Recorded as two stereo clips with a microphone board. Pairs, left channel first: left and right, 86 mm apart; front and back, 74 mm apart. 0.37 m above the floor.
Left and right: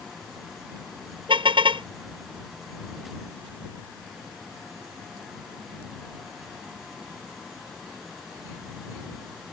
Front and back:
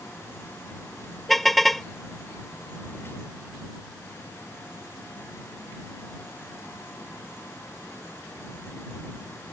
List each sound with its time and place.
1.3 s a car horn: 90° right